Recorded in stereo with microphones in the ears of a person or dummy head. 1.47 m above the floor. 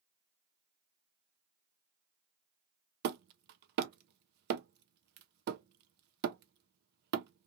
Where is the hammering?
50° right (ahead or behind), 0.5 m.